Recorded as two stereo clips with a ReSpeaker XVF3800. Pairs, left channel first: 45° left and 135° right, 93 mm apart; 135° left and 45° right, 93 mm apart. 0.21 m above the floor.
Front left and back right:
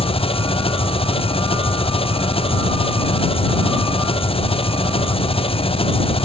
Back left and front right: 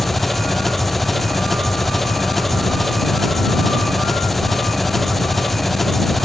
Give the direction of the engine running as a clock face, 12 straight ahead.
10 o'clock.